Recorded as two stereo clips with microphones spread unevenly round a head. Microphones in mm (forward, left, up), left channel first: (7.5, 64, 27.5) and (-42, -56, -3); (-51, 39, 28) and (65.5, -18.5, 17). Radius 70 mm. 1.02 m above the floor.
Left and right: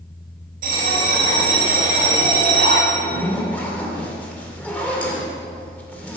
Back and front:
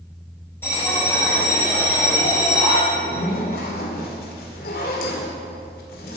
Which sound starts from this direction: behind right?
A bell, at 0.6 s.